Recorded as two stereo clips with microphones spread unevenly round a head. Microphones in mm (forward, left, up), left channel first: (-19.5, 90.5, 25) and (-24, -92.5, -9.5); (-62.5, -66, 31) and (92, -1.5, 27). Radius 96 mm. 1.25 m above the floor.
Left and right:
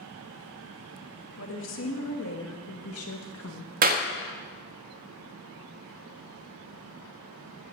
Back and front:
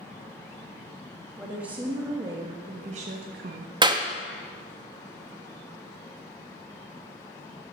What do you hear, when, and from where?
1.4 s a woman speaking: 110° left, 1.8 m; by 3.7 s 55° left, 1.0 m
3.8 s a clap: 40° right, 1.3 m